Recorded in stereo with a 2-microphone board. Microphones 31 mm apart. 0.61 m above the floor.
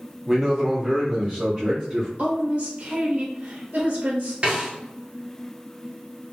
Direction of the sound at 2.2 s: 45° right (ahead or behind).